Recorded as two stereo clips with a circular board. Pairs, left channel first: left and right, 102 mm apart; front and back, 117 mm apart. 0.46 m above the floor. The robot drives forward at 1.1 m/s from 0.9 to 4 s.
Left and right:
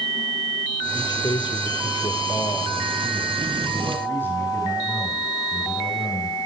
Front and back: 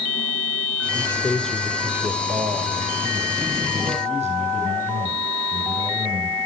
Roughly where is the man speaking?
Ahead left.